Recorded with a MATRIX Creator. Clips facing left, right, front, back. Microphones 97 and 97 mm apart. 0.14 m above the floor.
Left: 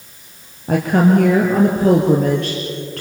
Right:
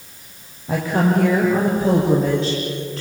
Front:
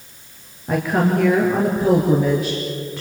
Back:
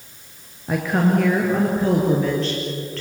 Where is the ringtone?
No ringtone in this recording.